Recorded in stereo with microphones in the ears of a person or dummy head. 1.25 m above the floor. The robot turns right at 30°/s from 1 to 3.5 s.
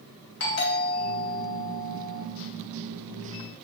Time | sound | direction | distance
0.4 | a doorbell | 95° left | 3 m